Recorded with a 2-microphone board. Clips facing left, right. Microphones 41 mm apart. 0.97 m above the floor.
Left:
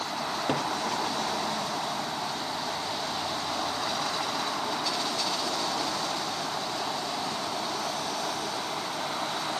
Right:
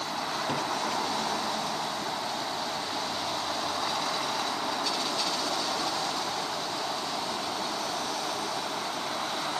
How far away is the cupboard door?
About 1.5 m.